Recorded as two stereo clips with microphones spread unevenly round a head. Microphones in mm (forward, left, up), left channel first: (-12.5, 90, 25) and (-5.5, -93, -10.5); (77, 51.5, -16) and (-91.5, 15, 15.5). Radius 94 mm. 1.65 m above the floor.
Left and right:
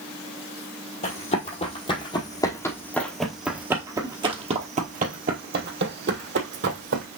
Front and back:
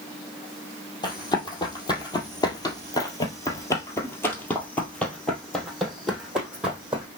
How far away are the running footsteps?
About 2.5 m.